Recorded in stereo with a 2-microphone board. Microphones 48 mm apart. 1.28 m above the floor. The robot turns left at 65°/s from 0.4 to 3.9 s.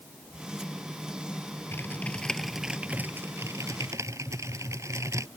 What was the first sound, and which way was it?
Typing on a keyboard, 45° left.